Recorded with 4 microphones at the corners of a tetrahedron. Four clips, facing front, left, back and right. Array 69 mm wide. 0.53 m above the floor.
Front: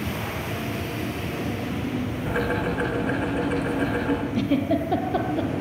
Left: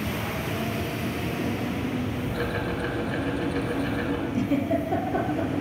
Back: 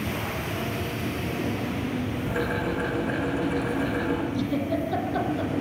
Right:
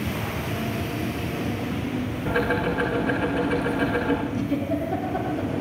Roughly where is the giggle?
Ahead.